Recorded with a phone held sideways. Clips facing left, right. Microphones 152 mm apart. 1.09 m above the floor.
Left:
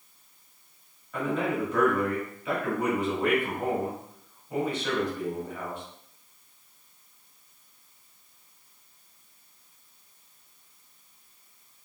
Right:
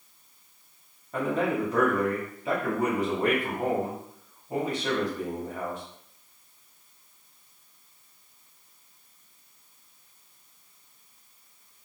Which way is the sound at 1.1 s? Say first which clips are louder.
Right 2 dB; 40° right (ahead or behind).